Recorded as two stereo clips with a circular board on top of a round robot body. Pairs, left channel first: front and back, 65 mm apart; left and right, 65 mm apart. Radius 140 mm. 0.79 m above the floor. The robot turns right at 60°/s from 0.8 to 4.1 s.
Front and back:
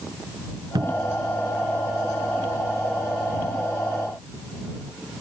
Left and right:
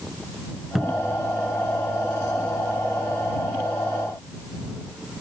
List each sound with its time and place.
0.8 s a cupboard door: 175° right; by 1.2 s 150° right